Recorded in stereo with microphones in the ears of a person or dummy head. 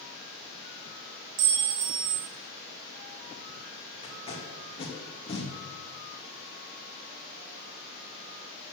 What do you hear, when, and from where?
1.4 s a clink: 55° right (ahead or behind), 2.0 m
4.0 s tape being pulled: 30° left (ahead or behind), 2.5 m